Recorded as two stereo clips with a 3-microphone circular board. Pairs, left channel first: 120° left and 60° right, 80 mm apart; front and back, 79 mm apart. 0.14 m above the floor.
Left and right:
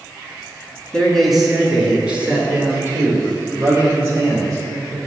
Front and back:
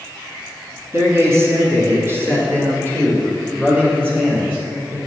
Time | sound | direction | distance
0.9 | a man speaking | 165° right | 2.0 m